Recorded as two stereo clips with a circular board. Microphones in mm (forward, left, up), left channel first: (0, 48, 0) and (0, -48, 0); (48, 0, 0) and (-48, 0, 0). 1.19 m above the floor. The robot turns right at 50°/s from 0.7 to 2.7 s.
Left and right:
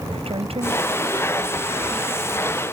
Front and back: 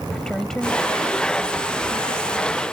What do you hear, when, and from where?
0.1 s a woman speaking: 85° right; by 2.6 s 15° left